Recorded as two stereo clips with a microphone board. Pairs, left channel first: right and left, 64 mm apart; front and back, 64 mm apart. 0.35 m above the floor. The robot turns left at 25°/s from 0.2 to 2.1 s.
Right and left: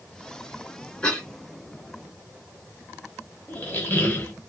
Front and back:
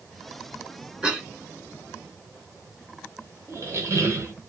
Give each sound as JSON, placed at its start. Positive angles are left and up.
{"t": 1.0, "sound": "a cough", "azimuth_deg": -140, "distance_m": 1.5}
{"t": 3.5, "sound": "a squeak", "azimuth_deg": -145, "distance_m": 1.0}